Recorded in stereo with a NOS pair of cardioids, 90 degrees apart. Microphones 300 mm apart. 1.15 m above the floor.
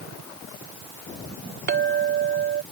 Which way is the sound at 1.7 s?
35° right.